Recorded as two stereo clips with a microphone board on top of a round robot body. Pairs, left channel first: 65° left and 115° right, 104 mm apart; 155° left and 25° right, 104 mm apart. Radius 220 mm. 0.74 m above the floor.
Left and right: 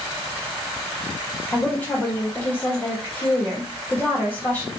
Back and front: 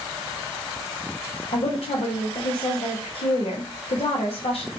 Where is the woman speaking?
140° left, 1.1 m.